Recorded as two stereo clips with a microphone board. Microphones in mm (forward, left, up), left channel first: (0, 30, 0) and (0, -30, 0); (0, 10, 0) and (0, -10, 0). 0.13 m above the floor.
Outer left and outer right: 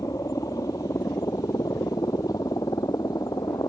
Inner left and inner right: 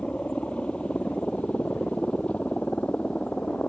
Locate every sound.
0.0 s a helicopter: 60° left (ahead or behind); by 3.7 s 75° left (ahead or behind)